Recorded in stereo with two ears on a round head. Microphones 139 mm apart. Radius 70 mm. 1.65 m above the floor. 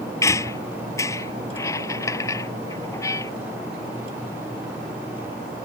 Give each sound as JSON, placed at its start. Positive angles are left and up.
{"t": 0.2, "sound": "a squeak", "side_deg": 20}